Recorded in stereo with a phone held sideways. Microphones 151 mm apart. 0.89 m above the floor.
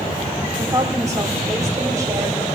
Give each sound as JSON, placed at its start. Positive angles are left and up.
{"t": 0.6, "sound": "a woman speaking", "side_deg": -25, "distance_m": 3.0}